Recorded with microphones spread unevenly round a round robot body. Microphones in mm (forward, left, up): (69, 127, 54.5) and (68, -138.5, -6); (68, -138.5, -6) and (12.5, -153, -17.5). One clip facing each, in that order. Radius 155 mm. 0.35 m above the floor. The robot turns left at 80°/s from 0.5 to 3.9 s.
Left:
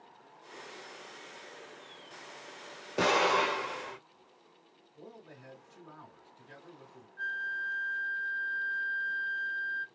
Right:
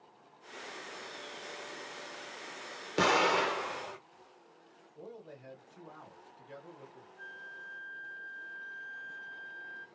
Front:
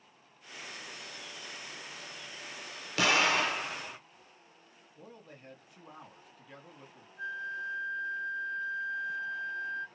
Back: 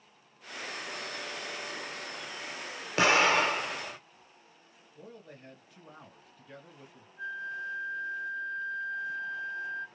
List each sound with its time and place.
3.0 s an explosion: 135° right, 1.1 m; by 4.0 s 150° left, 1.1 m
5.0 s a man speaking: 155° left, 2 m
7.2 s a flute: 100° left, 0.6 m